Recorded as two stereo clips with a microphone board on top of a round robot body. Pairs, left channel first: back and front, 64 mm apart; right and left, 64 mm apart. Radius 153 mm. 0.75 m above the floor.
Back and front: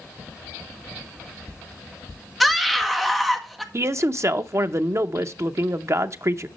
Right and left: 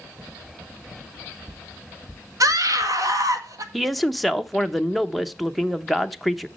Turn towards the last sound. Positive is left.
turn(degrees=0)